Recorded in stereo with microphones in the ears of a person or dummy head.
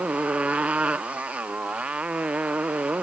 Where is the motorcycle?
5° right (ahead or behind).